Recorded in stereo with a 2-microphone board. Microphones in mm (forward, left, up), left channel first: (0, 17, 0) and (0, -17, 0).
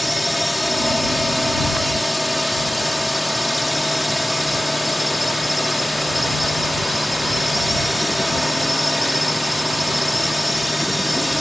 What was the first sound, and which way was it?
A drone, 5° right (ahead or behind).